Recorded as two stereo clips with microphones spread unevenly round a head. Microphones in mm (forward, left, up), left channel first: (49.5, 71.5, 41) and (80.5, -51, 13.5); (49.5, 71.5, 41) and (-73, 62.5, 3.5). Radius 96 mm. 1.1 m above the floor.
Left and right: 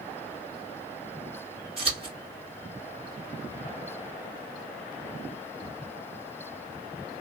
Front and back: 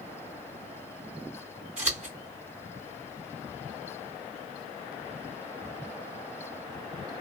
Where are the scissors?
130° right, 1.8 m.